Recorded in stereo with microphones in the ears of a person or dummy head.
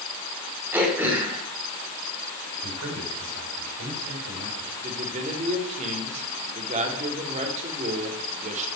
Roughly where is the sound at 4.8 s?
Right.